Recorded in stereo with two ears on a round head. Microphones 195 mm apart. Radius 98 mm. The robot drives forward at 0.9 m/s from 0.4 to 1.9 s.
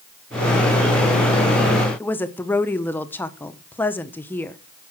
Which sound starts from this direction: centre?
A woman speaking, at 2.0 s.